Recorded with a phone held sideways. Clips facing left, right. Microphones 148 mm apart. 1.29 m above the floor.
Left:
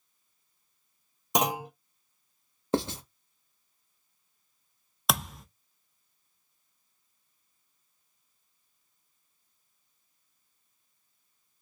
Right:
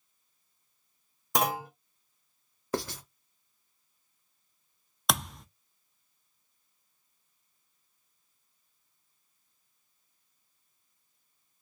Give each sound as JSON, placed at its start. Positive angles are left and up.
{"t": 1.4, "sound": "a clunk", "side_deg": 20, "distance_m": 0.9}
{"t": 2.7, "sound": "writing", "side_deg": 25, "distance_m": 0.8}
{"t": 5.1, "sound": "a thud", "side_deg": 0, "distance_m": 0.6}